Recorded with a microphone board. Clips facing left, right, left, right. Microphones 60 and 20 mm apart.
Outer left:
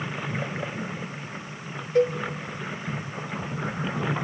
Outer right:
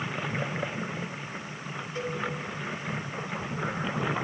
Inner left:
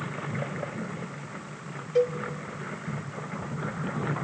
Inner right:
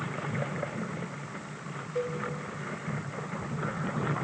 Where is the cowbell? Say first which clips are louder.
Outer left 13 dB, inner left 8 dB; 65° left (ahead or behind), 1.6 m.